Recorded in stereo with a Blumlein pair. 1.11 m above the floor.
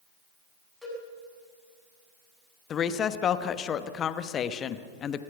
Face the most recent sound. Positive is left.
turn(degrees=25)